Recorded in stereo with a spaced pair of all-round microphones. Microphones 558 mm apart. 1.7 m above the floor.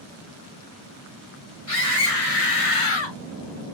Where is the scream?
80° left, 2 m; by 3.2 s 40° left (ahead or behind), 1.0 m.